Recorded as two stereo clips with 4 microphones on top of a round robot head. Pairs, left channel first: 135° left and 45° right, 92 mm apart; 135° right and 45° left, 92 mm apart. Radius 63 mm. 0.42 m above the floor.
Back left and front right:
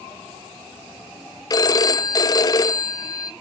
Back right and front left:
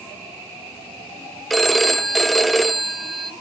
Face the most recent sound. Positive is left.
turn(degrees=135)